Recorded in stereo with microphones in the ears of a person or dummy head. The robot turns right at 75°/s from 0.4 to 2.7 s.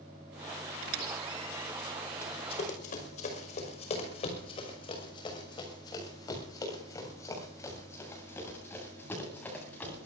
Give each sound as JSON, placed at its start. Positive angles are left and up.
{"t": 0.8, "sound": "a squeak", "side_deg": -55, "distance_m": 2.0}
{"t": 2.2, "sound": "running footsteps", "side_deg": 15, "distance_m": 5.5}